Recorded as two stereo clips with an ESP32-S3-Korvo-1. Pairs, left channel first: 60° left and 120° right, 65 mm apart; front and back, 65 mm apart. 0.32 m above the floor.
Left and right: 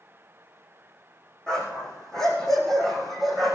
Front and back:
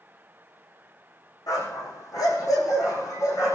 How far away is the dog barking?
About 7.5 m.